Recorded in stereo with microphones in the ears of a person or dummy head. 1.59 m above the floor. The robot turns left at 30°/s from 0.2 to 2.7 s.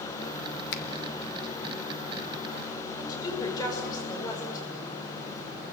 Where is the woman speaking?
20° left (ahead or behind), 6 m.